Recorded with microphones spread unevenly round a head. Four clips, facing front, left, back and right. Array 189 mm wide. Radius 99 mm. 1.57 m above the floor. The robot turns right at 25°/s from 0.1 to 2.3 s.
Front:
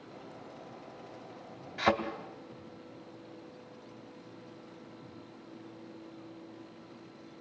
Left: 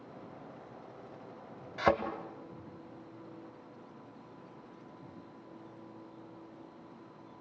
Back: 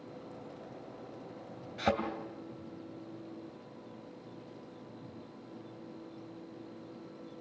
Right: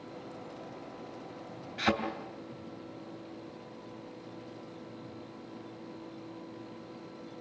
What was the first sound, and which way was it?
A thud, 95° left.